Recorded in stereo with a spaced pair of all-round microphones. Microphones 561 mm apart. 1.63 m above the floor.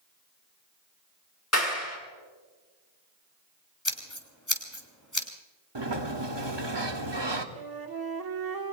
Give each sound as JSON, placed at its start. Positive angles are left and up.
{"t": 1.5, "sound": "a clap", "side_deg": 25, "distance_m": 6.0}
{"t": 3.9, "sound": "scissors", "side_deg": 30, "distance_m": 3.0}
{"t": 5.8, "sound": "a sliding door", "side_deg": -50, "distance_m": 1.4}
{"t": 7.5, "sound": "a flute", "side_deg": -40, "distance_m": 1.3}